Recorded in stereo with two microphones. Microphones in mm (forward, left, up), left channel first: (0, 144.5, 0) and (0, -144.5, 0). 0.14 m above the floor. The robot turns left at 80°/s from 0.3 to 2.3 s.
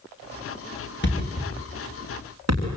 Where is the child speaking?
I don't hear a child speaking.